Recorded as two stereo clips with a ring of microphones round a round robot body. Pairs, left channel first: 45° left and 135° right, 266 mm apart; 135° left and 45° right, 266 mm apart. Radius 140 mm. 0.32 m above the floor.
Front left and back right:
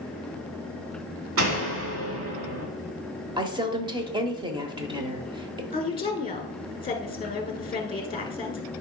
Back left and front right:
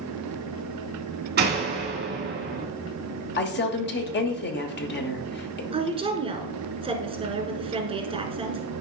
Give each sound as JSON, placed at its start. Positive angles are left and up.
{"t": 1.4, "sound": "a door slam", "azimuth_deg": -100, "distance_m": 2.5}
{"t": 3.4, "sound": "a woman speaking", "azimuth_deg": 160, "distance_m": 1.1}
{"t": 5.7, "sound": "a woman speaking", "azimuth_deg": 0, "distance_m": 1.4}